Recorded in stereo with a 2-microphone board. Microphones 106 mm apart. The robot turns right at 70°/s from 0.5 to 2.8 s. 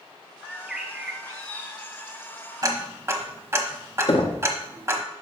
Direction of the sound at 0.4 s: 170° left.